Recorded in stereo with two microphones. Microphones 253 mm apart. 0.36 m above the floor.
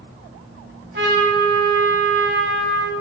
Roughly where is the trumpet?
Right.